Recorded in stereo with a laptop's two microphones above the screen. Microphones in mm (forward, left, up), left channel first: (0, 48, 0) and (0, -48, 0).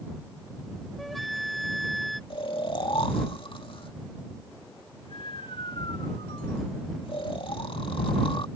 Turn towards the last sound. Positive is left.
turn(degrees=65)  # may be behind; listen again after turning